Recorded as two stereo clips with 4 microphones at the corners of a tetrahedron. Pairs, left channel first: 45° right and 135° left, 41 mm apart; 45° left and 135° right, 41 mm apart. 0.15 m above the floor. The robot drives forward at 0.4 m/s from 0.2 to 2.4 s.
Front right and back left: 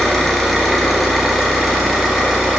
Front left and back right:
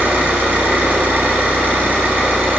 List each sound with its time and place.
0.0 s an engine running: 125° right, 1.7 m; by 2.6 s 145° right, 2.5 m